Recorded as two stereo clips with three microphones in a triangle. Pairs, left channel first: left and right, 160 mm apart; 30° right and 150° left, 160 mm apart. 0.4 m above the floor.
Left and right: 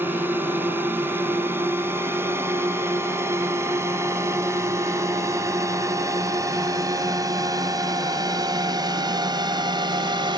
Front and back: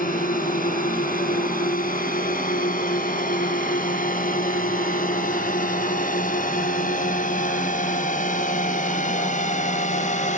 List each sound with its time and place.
0.0 s a drone: 15° right; by 10.4 s 40° right